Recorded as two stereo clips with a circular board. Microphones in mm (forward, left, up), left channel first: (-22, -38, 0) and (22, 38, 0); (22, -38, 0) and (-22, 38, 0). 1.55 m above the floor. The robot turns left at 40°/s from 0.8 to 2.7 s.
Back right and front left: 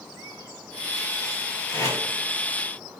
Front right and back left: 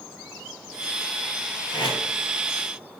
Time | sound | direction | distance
1.7 | tape being pulled | 65° right | 2 m